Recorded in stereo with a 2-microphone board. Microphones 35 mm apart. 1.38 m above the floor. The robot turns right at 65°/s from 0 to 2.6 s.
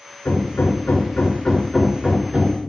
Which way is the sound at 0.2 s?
75° left.